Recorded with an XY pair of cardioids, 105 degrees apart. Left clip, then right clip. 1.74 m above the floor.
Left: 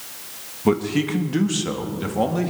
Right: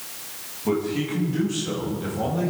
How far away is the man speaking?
About 2 m.